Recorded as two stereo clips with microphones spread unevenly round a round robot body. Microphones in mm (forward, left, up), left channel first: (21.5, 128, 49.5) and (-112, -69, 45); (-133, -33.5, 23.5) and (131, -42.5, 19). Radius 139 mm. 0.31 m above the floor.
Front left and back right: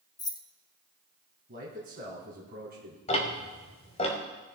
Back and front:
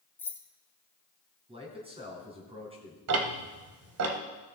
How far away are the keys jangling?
About 0.7 m.